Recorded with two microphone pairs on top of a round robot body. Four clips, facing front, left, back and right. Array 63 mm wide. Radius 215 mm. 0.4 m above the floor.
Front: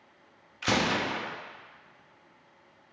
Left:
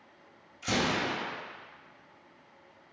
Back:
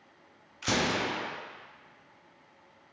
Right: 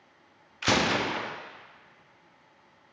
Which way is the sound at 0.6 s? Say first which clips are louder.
Right 4 dB, front 2 dB; 65° right.